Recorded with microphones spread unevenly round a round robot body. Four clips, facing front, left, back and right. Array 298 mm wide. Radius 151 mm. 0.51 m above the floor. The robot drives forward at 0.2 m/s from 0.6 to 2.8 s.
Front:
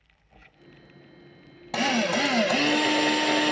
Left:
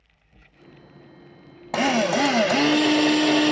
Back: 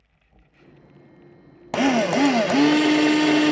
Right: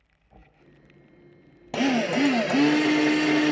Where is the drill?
170° left, 0.6 m; by 3.5 s 175° left, 0.7 m.